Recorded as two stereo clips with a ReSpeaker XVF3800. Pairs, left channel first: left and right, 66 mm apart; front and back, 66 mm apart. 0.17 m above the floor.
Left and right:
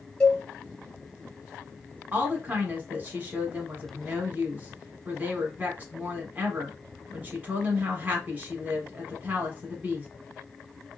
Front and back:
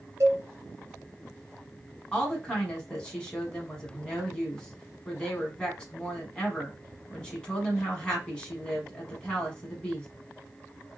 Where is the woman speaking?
60° right, 1.2 m.